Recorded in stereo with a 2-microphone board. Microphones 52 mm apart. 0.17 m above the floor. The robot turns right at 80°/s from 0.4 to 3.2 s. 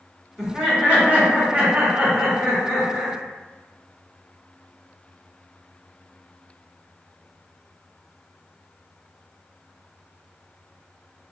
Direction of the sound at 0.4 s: 170° right.